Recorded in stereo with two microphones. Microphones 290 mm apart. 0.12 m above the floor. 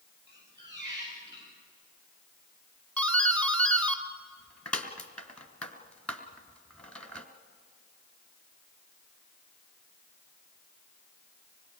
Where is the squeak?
40° right (ahead or behind), 9 m.